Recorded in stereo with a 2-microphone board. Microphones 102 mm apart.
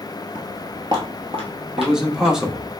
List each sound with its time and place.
0.3 s footsteps: 10° right (ahead or behind), 0.6 m; by 2.4 s 70° right (ahead or behind), 2.0 m
1.8 s a man speaking: 5° right (ahead or behind), 0.6 m